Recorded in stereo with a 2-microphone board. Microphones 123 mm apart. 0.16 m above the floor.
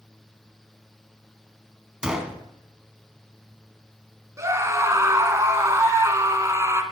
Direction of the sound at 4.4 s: 25° right (ahead or behind).